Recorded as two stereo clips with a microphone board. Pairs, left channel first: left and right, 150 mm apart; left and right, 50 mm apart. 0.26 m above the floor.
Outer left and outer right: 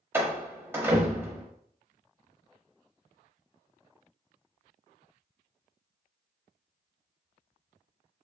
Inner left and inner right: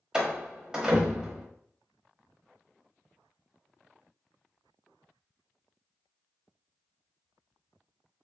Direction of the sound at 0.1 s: 15° right (ahead or behind).